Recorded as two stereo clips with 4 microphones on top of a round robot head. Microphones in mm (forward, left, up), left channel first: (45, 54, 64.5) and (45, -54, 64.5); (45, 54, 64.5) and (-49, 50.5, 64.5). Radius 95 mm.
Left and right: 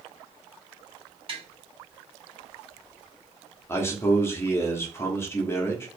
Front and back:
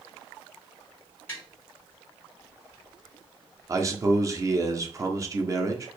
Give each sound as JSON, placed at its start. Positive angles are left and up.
{"t": 1.3, "sound": "tapping", "azimuth_deg": -65, "distance_m": 2.5}
{"t": 3.7, "sound": "a man speaking", "azimuth_deg": 145, "distance_m": 1.0}